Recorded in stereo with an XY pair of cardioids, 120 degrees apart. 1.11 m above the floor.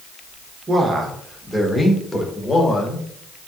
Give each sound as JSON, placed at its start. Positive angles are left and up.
{"t": 0.7, "sound": "a man speaking", "azimuth_deg": -30, "distance_m": 1.1}